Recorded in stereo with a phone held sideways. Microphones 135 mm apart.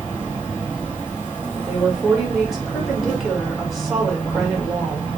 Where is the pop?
I don't hear a pop.